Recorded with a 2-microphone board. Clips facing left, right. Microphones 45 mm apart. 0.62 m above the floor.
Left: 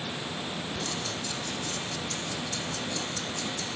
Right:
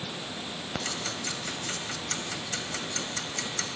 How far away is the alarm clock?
No alarm clock in this recording.